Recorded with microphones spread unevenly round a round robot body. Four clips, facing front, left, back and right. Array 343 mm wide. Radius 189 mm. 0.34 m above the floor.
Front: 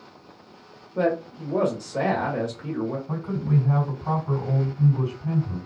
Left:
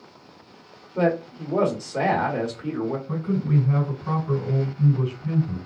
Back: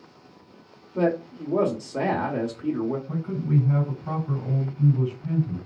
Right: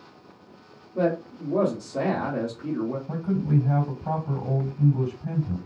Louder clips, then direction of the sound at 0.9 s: Left 2 dB, even; 150° right.